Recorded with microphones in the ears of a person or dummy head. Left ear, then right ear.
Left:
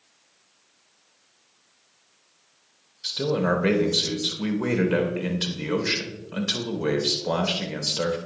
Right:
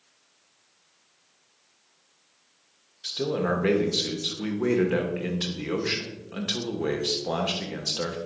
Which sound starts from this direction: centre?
A man speaking, at 3.0 s.